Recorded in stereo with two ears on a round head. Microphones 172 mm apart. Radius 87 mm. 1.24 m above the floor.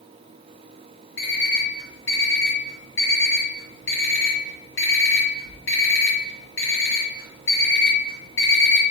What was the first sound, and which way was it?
An alarm clock, 70° left (ahead or behind).